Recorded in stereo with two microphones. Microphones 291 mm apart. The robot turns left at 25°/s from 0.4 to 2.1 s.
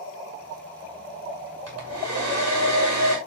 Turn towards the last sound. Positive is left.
turn(degrees=-70)  # may be behind; listen again after turning